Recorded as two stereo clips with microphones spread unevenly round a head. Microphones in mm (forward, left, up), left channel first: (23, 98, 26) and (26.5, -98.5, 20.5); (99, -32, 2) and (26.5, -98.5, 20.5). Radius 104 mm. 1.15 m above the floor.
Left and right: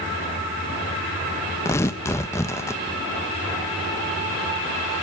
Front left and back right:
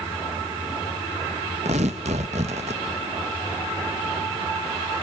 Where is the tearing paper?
170° left, 0.9 m.